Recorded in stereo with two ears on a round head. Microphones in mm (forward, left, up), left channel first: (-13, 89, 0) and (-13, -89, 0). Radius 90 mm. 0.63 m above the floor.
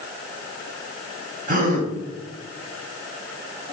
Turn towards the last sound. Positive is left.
turn(degrees=-45)  # may be behind; listen again after turning